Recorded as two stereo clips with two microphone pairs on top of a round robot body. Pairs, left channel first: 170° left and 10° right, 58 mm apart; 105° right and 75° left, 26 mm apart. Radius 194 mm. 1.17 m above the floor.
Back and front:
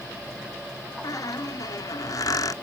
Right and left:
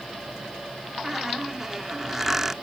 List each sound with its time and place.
1.0 s a squeak: 155° left